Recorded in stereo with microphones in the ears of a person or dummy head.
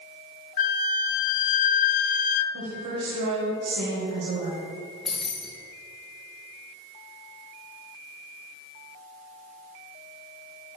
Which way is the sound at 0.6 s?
50° left (ahead or behind).